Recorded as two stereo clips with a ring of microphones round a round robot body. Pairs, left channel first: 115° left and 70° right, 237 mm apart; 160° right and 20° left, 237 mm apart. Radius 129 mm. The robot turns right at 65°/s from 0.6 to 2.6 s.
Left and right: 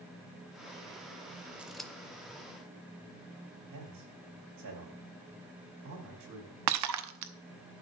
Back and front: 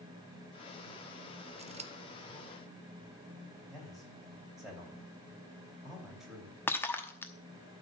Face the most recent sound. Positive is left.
turn(degrees=-75)